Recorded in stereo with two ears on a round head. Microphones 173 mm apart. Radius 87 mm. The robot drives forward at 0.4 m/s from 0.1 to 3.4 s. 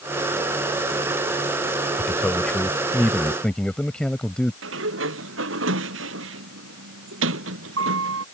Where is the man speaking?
5° left (ahead or behind).